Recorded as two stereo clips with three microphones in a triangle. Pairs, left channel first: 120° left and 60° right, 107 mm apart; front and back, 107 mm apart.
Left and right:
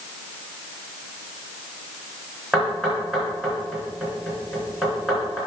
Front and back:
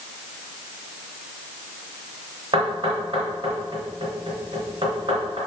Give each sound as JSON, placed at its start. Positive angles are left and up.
{"t": 2.5, "sound": "knocking", "azimuth_deg": -145, "distance_m": 3.5}